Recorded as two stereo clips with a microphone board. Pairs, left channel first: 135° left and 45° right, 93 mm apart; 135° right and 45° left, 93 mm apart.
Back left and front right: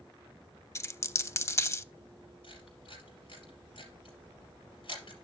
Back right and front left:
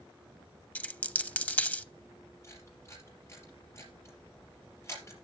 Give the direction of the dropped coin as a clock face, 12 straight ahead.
7 o'clock.